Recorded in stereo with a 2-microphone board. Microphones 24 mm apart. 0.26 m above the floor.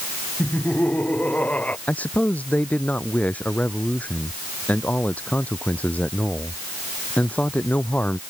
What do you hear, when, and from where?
0.4 s laughter: 85° left
1.9 s a man speaking: 85° left